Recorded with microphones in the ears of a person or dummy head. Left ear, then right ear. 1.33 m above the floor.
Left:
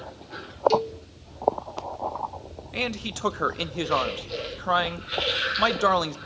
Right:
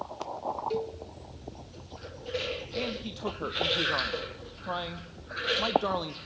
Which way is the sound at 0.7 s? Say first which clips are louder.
Left 9 dB; 50° left (ahead or behind).